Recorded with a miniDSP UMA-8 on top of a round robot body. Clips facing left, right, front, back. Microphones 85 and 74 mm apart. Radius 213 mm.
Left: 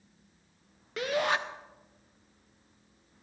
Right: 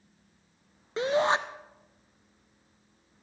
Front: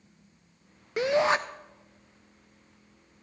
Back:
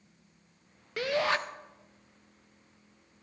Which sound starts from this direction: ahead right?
A shout, at 1.0 s.